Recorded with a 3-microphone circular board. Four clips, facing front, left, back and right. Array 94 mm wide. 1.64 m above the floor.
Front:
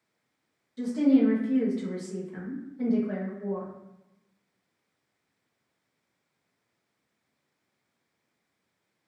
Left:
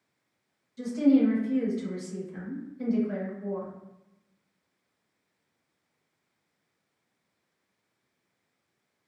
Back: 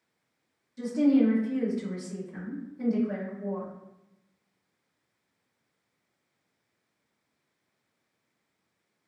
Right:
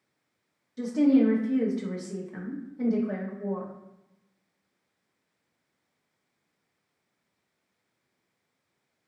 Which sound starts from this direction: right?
A woman speaking, at 0.8 s.